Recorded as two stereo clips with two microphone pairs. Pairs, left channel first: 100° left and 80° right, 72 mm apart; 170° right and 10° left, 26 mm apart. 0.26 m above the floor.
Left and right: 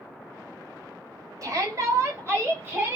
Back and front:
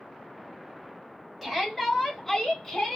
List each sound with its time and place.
1.4 s a shout: 80° right, 1.8 m; by 3.0 s 125° right, 1.5 m